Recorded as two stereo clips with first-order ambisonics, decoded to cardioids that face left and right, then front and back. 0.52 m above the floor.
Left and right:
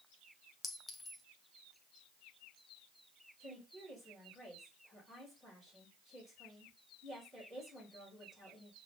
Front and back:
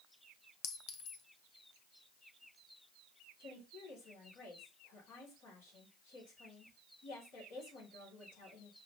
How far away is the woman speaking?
About 3.5 m.